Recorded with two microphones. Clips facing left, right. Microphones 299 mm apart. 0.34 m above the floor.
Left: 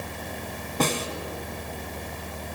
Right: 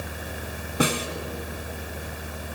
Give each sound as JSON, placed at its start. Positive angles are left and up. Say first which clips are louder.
{"t": 0.8, "sound": "a snare drum", "louder": "right 2 dB", "side_deg": -10, "distance_m": 0.8}